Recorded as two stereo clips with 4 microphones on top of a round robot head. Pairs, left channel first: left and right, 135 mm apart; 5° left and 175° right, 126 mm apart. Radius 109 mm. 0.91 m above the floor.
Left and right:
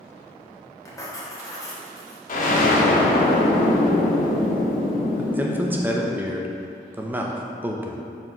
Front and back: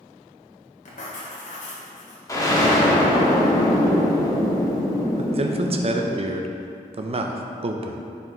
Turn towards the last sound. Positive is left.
turn(degrees=-165)